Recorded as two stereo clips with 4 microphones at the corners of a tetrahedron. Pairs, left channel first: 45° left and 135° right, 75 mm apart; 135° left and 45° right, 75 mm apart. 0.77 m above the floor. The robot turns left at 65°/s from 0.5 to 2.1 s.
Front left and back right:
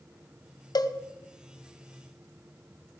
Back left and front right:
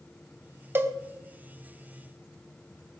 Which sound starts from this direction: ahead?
A cowbell, at 0.8 s.